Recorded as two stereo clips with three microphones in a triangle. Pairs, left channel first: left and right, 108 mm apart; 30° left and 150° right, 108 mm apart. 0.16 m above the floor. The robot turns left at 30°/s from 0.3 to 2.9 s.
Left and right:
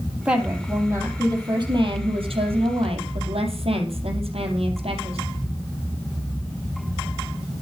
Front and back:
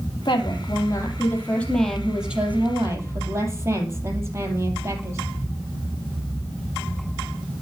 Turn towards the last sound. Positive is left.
turn(degrees=-90)